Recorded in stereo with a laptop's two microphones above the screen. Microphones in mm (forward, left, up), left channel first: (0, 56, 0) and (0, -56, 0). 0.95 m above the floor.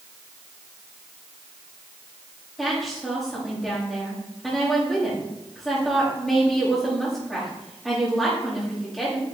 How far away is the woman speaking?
About 5 m.